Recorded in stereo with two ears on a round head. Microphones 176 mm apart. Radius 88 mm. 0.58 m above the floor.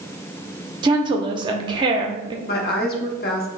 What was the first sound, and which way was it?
A woman speaking, 25° right (ahead or behind).